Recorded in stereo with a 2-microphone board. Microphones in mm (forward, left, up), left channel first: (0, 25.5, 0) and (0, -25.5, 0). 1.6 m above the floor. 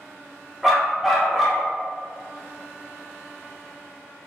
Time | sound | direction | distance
0.6 | a dog barking | 5° right (ahead or behind) | 1.3 m